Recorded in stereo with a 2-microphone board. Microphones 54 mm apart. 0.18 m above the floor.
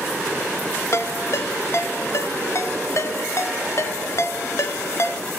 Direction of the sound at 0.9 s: 55° left (ahead or behind).